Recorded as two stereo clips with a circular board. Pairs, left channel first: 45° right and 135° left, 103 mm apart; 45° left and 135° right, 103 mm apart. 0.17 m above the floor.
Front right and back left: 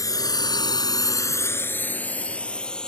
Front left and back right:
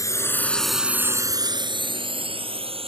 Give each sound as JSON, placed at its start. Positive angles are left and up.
{"t": 0.0, "sound": "a drone", "azimuth_deg": 0}